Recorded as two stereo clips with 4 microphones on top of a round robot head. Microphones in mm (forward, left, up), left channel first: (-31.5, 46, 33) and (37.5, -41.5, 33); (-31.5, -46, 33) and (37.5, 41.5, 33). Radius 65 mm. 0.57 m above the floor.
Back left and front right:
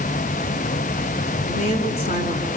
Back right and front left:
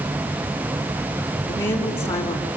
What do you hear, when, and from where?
1.5 s a woman speaking: 160° left, 5 m